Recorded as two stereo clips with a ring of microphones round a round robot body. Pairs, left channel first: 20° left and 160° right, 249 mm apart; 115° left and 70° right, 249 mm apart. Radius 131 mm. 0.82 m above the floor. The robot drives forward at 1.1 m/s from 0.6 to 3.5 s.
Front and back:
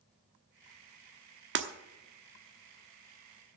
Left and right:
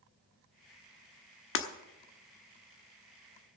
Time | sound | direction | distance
1.6 | breaking glass | 155° left | 1.1 m